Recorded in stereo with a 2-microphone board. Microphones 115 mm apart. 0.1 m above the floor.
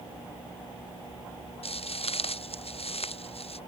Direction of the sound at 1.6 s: 60° left (ahead or behind).